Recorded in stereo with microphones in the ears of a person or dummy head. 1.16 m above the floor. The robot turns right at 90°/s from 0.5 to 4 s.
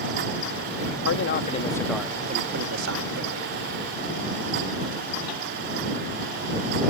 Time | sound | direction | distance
1.1 | a man speaking | 100° left | ?